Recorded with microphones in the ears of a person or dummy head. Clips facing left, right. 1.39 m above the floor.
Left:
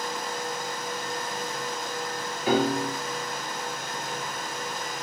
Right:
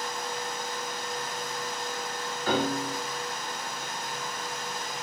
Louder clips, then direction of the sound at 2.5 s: Left 4 dB; 10° left (ahead or behind).